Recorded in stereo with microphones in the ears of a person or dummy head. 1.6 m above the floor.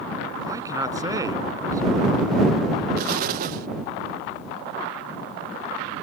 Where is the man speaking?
20° right (ahead or behind).